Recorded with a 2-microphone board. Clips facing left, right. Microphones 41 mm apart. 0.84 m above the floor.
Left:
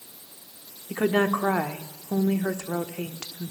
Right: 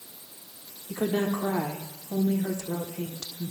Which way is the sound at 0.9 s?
55° left (ahead or behind).